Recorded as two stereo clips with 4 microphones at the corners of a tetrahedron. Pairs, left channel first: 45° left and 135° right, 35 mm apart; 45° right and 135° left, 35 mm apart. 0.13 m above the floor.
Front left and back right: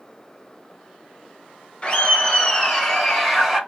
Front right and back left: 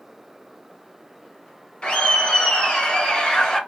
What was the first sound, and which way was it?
Laughter, straight ahead.